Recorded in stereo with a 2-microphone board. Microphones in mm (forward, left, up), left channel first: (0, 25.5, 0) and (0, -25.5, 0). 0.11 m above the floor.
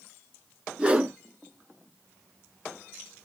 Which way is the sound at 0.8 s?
20° right (ahead or behind).